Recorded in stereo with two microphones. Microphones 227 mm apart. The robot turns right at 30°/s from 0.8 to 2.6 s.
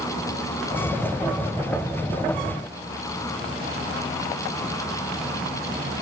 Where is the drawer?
No drawer in this recording.